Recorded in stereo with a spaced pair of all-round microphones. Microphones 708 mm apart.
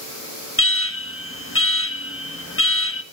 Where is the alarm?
20° left (ahead or behind), 1.4 m.